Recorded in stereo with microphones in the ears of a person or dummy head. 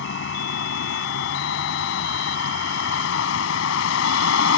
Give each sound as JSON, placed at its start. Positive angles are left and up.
{"t": 0.0, "sound": "a vehicle", "side_deg": 70}